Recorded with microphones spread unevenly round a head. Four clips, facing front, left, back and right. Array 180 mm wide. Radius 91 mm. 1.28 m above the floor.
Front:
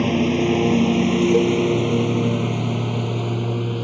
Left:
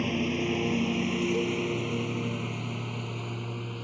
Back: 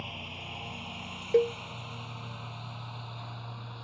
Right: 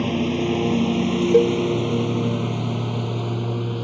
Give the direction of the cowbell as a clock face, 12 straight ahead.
3 o'clock.